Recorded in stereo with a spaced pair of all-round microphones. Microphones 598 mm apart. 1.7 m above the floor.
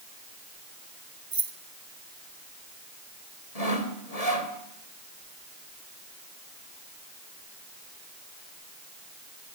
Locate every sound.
1.3 s keys jangling: 55° right (ahead or behind), 1.9 m
3.5 s sawing: 70° left (ahead or behind), 3 m